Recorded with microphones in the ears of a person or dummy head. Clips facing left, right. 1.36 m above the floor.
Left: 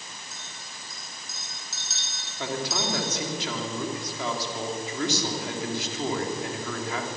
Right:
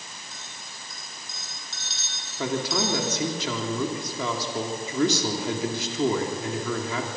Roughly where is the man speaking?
Right.